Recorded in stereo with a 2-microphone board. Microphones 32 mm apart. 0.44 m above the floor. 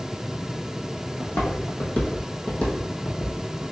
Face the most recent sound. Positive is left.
turn(degrees=15)  # may be behind; listen again after turning